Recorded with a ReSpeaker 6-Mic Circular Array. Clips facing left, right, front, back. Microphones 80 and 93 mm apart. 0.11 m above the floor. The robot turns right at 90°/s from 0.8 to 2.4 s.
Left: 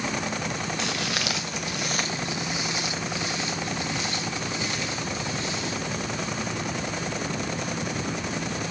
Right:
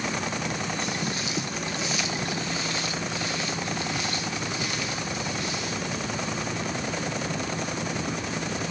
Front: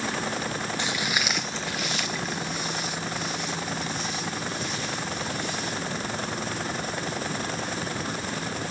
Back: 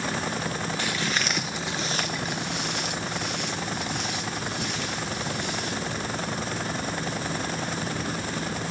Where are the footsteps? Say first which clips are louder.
Left 1 dB, even; 70° left, 0.7 m; by 6.0 s 155° left, 5.5 m.